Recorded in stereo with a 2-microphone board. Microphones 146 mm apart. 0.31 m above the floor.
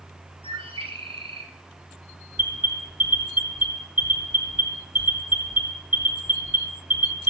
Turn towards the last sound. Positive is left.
turn(degrees=-10)  # may be behind; listen again after turning